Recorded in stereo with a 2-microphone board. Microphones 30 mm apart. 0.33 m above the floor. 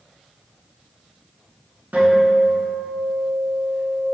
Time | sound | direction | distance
1.9 | a guitar | 75° right (ahead or behind) | 0.8 m